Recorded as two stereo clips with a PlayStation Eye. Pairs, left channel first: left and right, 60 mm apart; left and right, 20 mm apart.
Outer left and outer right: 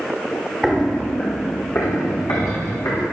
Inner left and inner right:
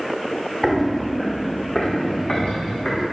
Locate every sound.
0.6 s footsteps: centre (ahead or behind), 1.0 m; by 3.0 s 75° left (ahead or behind), 3 m